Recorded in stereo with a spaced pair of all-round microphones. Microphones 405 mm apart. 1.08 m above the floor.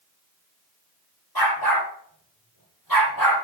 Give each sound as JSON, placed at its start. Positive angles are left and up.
{"t": 1.4, "sound": "a dog barking", "side_deg": 60, "distance_m": 8.5}